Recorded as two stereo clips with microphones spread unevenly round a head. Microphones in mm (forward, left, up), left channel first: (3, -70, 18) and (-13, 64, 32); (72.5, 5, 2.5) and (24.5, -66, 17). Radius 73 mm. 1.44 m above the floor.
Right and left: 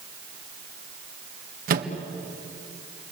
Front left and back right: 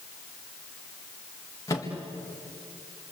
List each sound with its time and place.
1.7 s a microwave: 125° left, 1.8 m